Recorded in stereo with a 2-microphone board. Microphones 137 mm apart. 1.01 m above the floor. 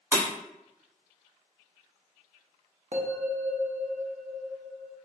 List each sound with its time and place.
0.1 s breaking glass: 15° right (ahead or behind), 1.5 m
2.9 s a bell: 55° right (ahead or behind), 0.5 m